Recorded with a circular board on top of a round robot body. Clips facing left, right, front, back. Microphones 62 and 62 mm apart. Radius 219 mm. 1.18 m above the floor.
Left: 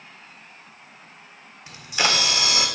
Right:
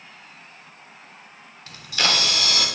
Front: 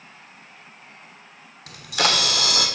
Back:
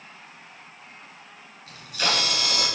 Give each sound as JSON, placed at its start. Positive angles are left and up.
{"t": 1.7, "sound": "a camera shutter", "azimuth_deg": 20, "distance_m": 1.8}